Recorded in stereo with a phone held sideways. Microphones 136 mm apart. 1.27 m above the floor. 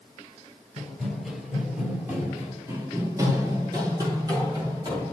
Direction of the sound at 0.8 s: Centre (ahead or behind).